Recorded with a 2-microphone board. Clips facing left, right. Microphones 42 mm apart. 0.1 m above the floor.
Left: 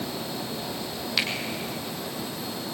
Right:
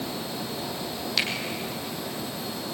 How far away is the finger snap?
About 3.5 m.